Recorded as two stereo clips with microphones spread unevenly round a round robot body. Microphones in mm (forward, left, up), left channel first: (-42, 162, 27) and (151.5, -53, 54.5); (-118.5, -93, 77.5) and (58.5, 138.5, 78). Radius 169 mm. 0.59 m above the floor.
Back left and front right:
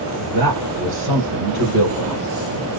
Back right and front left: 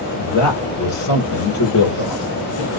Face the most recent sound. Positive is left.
turn(degrees=-100)